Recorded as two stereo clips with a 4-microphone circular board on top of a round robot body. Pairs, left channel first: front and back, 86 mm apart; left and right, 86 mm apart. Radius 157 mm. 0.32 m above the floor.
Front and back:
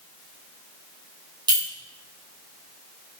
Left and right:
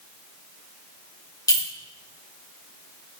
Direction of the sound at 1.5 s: 140° left.